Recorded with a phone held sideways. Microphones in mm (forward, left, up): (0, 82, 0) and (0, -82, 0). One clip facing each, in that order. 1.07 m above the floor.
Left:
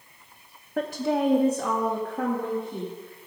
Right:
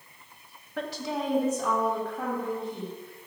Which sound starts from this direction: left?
A woman speaking, at 0.8 s.